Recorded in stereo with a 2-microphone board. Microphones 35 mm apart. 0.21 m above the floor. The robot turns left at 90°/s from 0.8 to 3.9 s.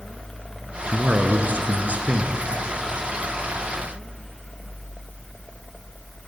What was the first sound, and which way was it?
A man speaking, 25° right.